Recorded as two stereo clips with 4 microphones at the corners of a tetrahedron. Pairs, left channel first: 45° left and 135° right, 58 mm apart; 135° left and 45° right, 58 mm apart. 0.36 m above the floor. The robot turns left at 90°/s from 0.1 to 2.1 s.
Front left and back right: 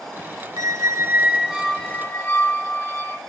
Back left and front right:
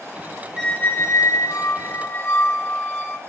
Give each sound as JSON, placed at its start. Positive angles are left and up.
{"t": 0.6, "sound": "a squeak", "azimuth_deg": -130, "distance_m": 1.1}